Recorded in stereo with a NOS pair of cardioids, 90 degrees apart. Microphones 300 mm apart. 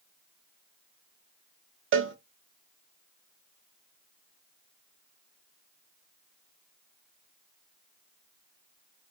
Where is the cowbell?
40° right, 0.5 m.